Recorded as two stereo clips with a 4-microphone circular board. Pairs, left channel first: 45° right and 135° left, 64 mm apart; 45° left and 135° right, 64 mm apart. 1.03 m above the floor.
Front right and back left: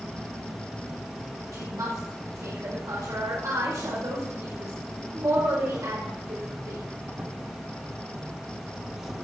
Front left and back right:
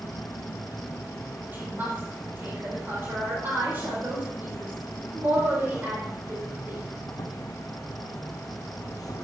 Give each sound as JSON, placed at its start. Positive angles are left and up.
{"t": 0.0, "sound": "an insect", "azimuth_deg": 55, "distance_m": 1.5}
{"t": 1.5, "sound": "a woman speaking", "azimuth_deg": 165, "distance_m": 4.5}